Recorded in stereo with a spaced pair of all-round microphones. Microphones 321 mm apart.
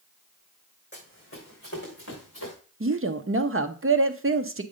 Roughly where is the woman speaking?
Right.